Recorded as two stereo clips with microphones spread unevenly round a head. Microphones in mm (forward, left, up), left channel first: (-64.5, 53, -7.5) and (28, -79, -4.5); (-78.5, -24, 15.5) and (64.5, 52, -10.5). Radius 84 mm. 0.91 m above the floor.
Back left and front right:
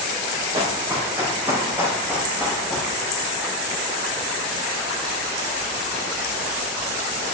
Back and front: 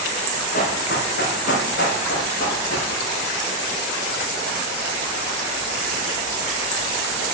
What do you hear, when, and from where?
0.5 s running footsteps: 120° right, 3.5 m; by 2.9 s 140° right, 3.5 m